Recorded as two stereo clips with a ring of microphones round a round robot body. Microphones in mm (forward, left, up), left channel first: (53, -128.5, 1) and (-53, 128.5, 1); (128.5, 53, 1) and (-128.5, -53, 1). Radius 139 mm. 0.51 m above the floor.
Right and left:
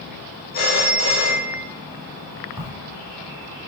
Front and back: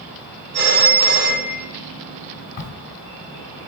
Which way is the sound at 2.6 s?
50° left.